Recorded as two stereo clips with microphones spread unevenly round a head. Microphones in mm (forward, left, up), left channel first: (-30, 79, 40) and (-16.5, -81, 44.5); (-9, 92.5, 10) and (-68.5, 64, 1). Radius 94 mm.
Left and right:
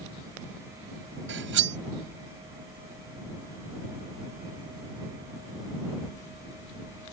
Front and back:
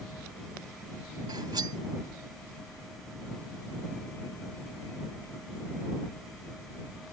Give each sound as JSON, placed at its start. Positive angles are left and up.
{"t": 1.3, "sound": "cutlery clinking", "azimuth_deg": -90}